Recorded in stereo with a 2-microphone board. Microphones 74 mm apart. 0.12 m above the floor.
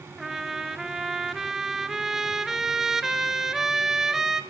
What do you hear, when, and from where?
0.2 s a trumpet: 5° right (ahead or behind), 0.6 m